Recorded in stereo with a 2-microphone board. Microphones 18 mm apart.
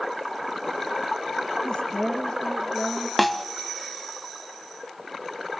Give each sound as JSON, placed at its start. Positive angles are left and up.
{"t": 1.6, "sound": "a woman speaking", "side_deg": 65, "distance_m": 3.5}
{"t": 3.2, "sound": "a snare drum", "side_deg": 5, "distance_m": 1.1}